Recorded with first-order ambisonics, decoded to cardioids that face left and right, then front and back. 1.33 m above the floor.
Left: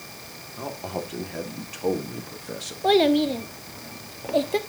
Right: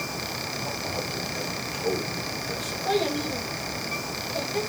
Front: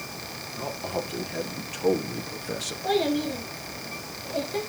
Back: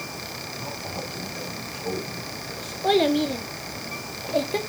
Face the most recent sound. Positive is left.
turn(degrees=115)